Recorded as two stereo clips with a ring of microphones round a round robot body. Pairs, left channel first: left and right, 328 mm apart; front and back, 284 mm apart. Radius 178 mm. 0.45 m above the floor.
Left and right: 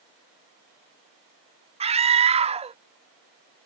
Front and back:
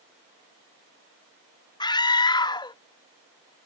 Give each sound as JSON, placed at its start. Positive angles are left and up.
{"t": 1.8, "sound": "a scream", "azimuth_deg": -50}